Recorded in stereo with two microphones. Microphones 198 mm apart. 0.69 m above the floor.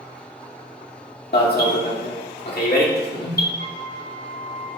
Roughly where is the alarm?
Left.